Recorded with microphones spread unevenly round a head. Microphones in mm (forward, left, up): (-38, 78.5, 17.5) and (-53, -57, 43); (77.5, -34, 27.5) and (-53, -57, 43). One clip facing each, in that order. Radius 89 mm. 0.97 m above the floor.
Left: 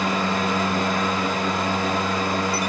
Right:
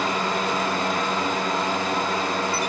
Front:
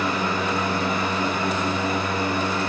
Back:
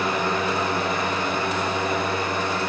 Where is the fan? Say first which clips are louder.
Left 1 dB, back 1 dB; 115° left, 3.5 m.